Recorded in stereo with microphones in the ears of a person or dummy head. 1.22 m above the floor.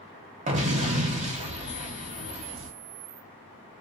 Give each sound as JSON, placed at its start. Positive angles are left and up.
{"t": 0.5, "sound": "an explosion", "side_deg": -35, "distance_m": 0.8}